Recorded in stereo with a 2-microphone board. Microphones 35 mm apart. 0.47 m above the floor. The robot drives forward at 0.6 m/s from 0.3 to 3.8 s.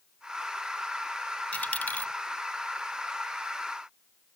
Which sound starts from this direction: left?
A dropped coin, at 1.5 s.